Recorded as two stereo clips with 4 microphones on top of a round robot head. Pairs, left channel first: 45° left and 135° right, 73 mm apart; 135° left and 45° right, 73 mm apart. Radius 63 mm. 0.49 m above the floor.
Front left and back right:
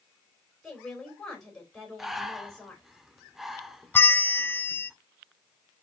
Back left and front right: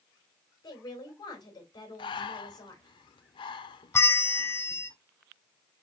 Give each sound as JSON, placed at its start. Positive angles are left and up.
{"t": 0.6, "sound": "a woman speaking", "azimuth_deg": 130, "distance_m": 2.5}
{"t": 2.0, "sound": "breathing", "azimuth_deg": 140, "distance_m": 0.6}
{"t": 3.9, "sound": "a bell", "azimuth_deg": 100, "distance_m": 0.5}